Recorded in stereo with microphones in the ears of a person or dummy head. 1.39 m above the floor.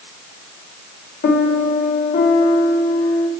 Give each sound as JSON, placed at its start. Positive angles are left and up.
{"t": 1.2, "sound": "a piano", "side_deg": 50, "distance_m": 1.2}